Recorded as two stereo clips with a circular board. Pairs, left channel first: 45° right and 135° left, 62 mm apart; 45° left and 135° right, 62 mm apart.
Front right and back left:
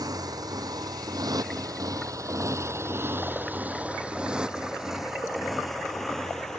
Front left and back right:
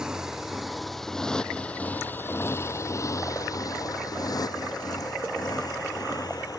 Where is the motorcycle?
145° left; by 6.6 s 35° left.